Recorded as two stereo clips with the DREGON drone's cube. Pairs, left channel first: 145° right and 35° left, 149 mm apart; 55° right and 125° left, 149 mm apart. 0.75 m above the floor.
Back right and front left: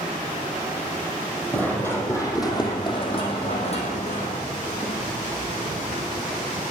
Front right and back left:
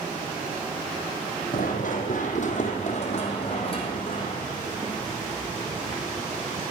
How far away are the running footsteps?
About 2.0 m.